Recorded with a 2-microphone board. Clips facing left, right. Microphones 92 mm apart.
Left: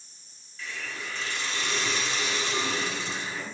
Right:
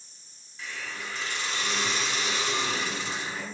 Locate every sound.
0.6 s a hiss: 20° right (ahead or behind), 1.2 m